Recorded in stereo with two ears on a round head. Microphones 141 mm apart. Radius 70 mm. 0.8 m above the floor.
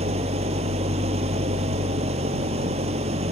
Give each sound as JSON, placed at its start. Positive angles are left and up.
{"t": 0.0, "sound": "an engine running", "side_deg": -45}